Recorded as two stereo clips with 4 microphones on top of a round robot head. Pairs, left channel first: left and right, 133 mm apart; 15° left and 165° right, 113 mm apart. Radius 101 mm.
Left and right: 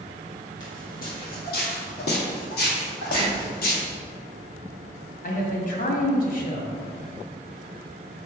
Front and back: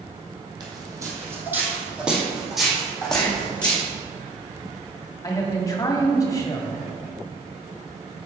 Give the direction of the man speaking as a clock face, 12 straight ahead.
10 o'clock.